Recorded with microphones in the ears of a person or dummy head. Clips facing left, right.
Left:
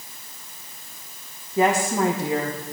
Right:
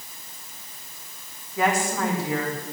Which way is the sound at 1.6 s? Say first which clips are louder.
Left 4 dB; 20° left (ahead or behind).